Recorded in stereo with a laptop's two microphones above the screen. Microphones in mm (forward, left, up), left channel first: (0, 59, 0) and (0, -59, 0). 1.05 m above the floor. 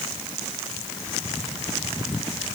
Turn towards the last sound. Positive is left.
No sound to turn to.